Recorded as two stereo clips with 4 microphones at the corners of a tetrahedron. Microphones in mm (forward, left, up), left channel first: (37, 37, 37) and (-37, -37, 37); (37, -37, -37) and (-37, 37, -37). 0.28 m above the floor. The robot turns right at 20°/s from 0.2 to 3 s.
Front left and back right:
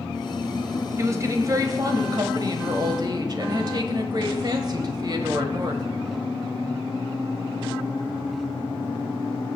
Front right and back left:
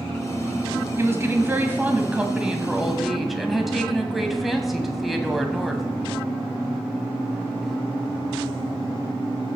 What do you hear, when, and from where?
1.0 s a woman speaking: 175° right, 1.2 m; by 5.8 s 135° right, 1.2 m